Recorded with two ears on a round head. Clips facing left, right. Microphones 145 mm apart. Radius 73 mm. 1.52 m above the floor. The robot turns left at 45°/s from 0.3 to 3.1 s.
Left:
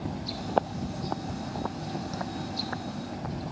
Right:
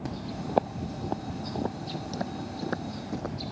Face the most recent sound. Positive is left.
turn(degrees=-55)  # may be behind; listen again after turning